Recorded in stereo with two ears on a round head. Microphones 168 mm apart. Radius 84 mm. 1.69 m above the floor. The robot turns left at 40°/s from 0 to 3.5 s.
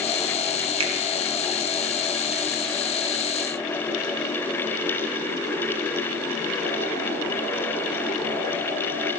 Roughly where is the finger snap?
Right.